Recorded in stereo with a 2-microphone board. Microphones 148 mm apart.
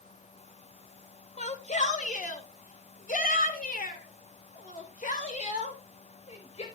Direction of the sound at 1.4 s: 55° left (ahead or behind).